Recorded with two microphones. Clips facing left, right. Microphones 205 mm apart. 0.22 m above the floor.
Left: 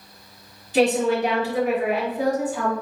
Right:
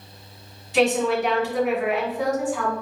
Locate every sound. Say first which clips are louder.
0.7 s a woman speaking: left 1 dB; 35° left (ahead or behind), 1.5 m